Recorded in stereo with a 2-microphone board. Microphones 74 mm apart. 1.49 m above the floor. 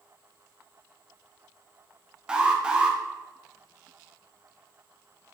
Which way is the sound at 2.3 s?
15° right (ahead or behind).